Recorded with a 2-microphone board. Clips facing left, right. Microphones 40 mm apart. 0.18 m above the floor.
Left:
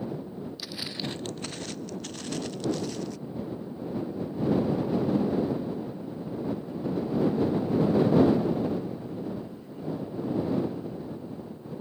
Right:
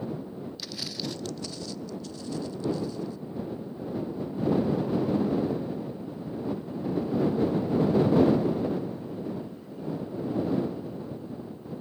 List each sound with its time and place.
0.6 s footsteps: 10° left (ahead or behind); by 3.2 s 75° left (ahead or behind)